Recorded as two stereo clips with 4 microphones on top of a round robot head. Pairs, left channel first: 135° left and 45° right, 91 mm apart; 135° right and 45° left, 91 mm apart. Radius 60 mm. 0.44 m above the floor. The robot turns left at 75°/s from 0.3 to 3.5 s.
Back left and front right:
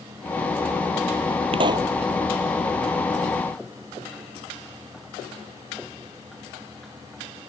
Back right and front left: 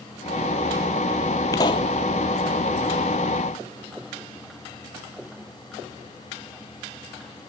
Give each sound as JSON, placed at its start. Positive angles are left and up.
{"t": 1.5, "sound": "a pop", "azimuth_deg": -80}